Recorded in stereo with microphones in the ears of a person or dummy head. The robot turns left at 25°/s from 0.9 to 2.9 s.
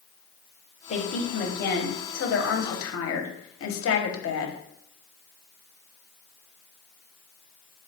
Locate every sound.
0.9 s a woman speaking: 145° left, 0.8 m; by 4.6 s 95° left, 0.8 m